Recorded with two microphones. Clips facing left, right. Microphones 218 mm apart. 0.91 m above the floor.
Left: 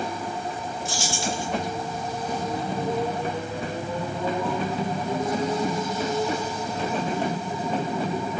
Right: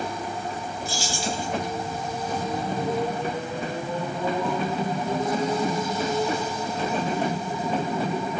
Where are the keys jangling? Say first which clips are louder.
Even; 75° left (ahead or behind), 1.7 m.